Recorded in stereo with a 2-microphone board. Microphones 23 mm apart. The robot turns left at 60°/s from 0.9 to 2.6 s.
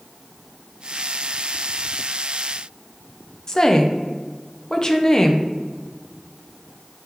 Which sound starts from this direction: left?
A woman speaking, at 3.5 s.